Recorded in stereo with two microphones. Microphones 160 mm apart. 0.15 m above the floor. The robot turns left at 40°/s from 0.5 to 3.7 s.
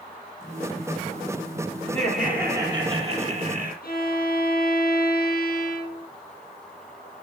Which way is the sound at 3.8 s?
65° left (ahead or behind).